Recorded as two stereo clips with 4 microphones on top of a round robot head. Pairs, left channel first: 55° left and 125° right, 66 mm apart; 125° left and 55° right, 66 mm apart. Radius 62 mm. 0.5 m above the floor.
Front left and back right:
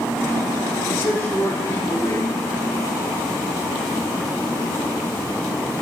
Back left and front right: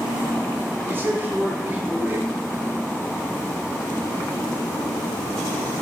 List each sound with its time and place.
0.9 s a man speaking: 5° left, 4.5 m